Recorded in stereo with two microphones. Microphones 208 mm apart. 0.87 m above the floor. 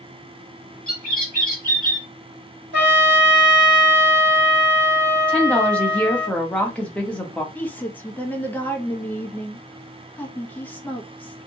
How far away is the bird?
About 1.2 m.